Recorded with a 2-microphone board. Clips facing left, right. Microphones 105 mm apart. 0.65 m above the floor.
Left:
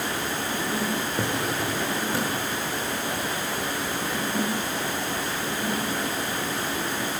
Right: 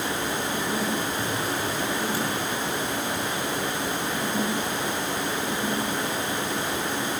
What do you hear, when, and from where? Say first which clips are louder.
1.2 s a drawer: left 1 dB; 65° left (ahead or behind), 6.5 m